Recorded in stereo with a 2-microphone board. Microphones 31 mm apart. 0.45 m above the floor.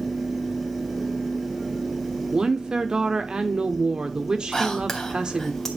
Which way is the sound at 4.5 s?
10° left (ahead or behind).